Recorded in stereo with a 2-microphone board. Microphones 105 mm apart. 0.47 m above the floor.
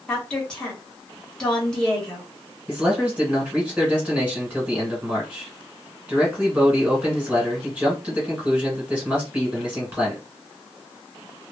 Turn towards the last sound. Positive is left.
turn(degrees=-15)  # may be behind; listen again after turning